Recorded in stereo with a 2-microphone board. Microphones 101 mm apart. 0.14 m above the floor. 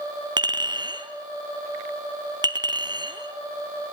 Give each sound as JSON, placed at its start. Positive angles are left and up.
{"t": 0.4, "sound": "a clink", "side_deg": -50, "distance_m": 2.0}